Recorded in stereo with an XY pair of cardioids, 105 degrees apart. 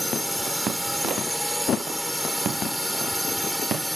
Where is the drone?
Straight ahead.